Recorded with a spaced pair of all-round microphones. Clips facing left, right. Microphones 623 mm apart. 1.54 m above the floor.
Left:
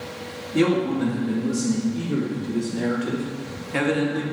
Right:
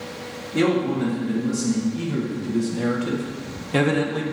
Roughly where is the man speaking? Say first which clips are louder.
Even; centre.